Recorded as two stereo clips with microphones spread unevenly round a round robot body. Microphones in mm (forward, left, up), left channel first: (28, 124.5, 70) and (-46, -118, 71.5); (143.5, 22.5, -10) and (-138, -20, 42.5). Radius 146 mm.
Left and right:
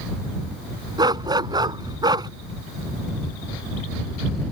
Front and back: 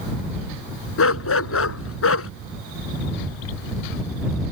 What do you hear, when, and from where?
1.0 s a dog barking: 35° right